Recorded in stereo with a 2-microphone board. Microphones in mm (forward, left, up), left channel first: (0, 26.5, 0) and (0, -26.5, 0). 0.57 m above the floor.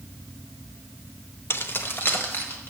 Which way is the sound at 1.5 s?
50° left (ahead or behind).